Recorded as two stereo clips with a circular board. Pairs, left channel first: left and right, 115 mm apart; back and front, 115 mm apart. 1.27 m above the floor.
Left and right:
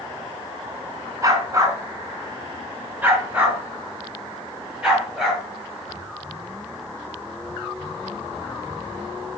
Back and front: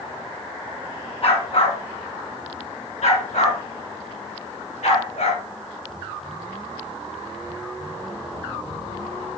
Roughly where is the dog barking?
Behind right.